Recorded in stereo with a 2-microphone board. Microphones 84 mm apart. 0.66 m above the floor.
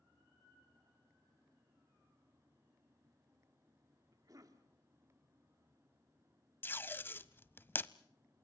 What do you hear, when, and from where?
4.1 s a cough: 45° right (ahead or behind), 1.9 m
6.6 s tape being pulled: 25° left (ahead or behind), 0.5 m